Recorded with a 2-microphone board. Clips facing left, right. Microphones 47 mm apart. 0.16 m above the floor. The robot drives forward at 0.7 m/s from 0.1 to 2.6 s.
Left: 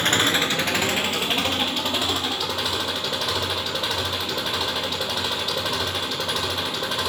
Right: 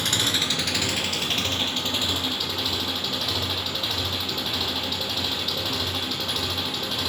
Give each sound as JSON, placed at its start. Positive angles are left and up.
{"t": 0.0, "sound": "an engine running", "side_deg": 40, "distance_m": 0.8}